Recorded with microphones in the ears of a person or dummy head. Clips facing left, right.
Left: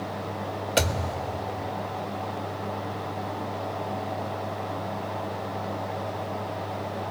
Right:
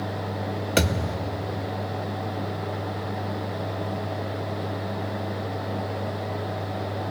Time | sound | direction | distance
0.8 | a thud | 30° right (ahead or behind) | 1.0 m